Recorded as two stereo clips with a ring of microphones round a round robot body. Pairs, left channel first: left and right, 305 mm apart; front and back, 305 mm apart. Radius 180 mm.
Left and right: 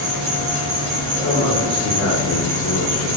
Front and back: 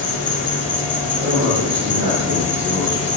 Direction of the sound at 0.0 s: 65° right.